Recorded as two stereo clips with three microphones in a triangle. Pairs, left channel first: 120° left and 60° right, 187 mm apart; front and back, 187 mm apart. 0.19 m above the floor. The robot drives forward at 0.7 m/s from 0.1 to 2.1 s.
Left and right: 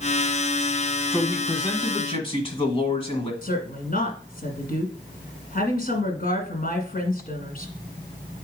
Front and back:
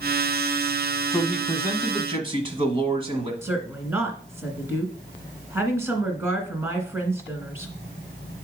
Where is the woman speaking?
105° left, 1.8 m.